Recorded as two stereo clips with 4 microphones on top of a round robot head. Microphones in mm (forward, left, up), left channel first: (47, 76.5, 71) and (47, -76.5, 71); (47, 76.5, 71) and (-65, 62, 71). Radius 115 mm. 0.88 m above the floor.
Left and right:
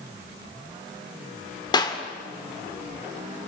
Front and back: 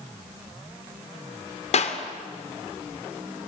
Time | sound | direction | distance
1.7 | a clap | 25° left | 2.5 m